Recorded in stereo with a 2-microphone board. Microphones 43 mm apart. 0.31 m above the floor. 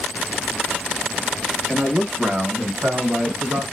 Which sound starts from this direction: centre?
A man speaking, at 1.7 s.